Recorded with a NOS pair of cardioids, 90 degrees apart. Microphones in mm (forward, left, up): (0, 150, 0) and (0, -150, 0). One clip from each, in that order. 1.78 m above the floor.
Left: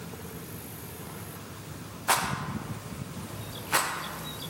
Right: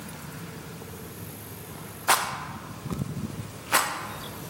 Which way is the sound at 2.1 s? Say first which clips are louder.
Right 3 dB; 15° right.